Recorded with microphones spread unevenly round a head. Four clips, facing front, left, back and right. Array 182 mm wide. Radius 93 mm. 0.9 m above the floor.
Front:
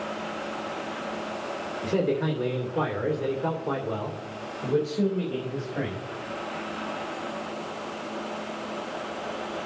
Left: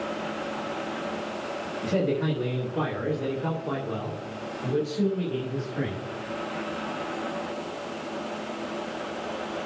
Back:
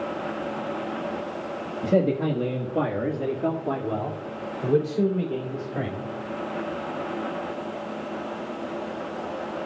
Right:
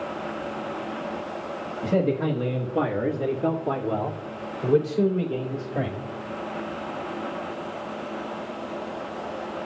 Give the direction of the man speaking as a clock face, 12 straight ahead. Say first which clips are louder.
Right 3 dB, back 4 dB; 6 o'clock.